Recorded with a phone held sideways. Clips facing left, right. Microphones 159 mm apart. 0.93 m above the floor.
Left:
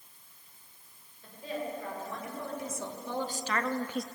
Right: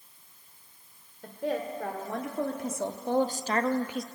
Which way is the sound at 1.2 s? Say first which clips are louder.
Right 6 dB; 75° right (ahead or behind).